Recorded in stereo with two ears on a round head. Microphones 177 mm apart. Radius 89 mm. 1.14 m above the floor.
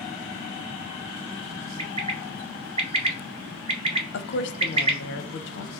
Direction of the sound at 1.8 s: 30° right (ahead or behind).